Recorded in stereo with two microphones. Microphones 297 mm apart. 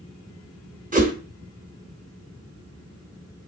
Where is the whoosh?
25° right (ahead or behind), 1.1 m.